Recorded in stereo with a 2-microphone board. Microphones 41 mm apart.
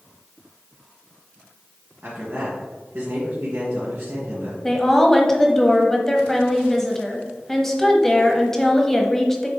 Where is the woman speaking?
10° left (ahead or behind), 1.0 m.